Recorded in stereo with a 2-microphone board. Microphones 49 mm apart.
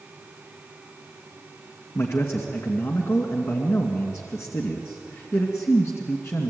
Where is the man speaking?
60° left (ahead or behind), 2.5 m.